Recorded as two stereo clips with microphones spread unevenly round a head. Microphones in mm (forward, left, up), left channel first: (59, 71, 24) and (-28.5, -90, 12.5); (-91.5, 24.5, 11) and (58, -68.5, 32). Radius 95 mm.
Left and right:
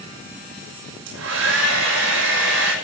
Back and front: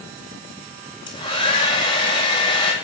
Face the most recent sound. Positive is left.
turn(degrees=-145)